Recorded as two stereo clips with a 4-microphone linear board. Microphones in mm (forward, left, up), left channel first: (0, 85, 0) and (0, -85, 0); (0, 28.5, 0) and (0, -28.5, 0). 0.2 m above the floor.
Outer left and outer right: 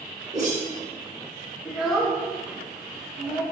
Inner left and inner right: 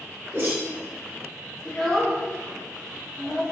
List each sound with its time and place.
0.3 s a whoosh: 45° right (ahead or behind), 2.5 m
1.6 s a child speaking: centre (ahead or behind), 1.7 m